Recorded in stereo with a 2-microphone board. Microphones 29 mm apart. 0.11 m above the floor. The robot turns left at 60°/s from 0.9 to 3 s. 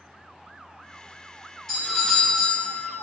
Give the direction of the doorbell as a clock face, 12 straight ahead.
11 o'clock.